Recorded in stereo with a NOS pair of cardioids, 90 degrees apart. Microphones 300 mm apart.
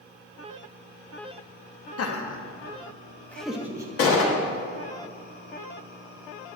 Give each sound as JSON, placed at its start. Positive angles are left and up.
{"t": 2.0, "sound": "laughter", "azimuth_deg": 50, "distance_m": 1.3}
{"t": 4.0, "sound": "a gunshot", "azimuth_deg": 50, "distance_m": 1.8}